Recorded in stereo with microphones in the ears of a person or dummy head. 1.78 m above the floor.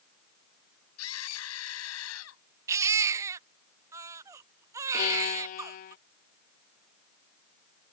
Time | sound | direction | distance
1.0 | a scream | 85° left | ?
2.7 | a baby crying | 20° right (ahead or behind) | ?
4.9 | a violin | 45° left (ahead or behind) | ?